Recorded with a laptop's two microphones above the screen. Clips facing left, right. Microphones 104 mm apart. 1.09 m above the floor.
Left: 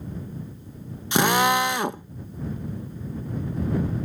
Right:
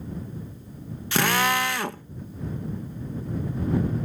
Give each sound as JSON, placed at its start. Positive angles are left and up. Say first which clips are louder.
{"t": 1.1, "sound": "a drill", "louder": "left 3 dB", "side_deg": 20}